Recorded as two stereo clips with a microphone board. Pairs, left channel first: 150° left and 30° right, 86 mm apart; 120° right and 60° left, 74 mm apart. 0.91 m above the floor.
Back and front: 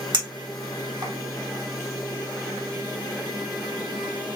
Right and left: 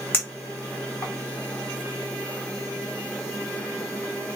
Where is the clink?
60° right, 1.2 m.